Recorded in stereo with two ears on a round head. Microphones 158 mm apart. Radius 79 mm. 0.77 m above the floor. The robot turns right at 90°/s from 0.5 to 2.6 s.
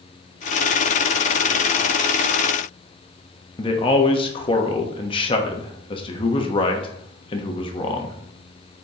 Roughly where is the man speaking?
Left.